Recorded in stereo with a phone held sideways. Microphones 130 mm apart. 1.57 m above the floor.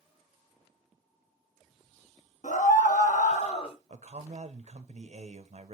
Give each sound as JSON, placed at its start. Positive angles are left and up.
{"t": 2.4, "sound": "a scream", "side_deg": 70, "distance_m": 1.3}
{"t": 3.9, "sound": "a man speaking", "side_deg": -55, "distance_m": 0.9}